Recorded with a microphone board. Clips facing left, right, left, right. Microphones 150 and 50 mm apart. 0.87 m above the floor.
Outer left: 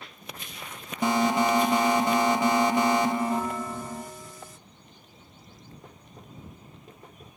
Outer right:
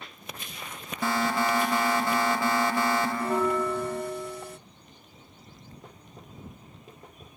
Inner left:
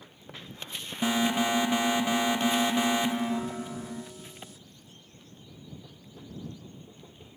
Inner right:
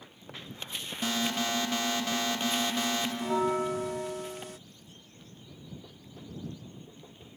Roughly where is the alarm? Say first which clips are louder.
Outer left 4 dB, inner left 5 dB; centre.